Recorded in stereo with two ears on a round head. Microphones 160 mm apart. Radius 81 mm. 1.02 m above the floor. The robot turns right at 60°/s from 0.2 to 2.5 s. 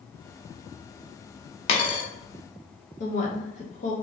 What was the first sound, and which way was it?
A dropped coin, 35° left (ahead or behind).